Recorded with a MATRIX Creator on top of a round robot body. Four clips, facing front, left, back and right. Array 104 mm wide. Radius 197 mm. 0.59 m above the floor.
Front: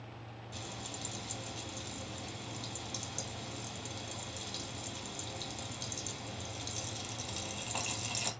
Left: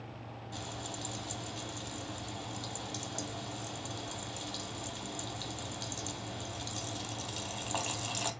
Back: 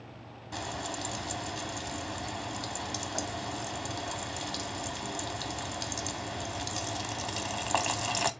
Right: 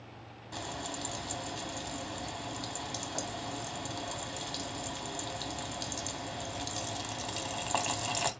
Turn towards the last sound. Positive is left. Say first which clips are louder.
# right 4 dB, back 10 dB
turn(degrees=-160)